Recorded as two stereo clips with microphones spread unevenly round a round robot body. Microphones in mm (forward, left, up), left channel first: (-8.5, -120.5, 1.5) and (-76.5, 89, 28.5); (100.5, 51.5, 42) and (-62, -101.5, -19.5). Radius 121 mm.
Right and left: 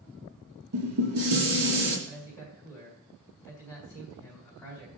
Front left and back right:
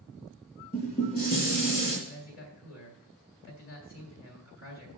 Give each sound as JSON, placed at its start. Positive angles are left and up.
{"t": 0.7, "sound": "dishes clattering", "azimuth_deg": 100, "distance_m": 3.5}
{"t": 2.1, "sound": "a man speaking", "azimuth_deg": 10, "distance_m": 3.5}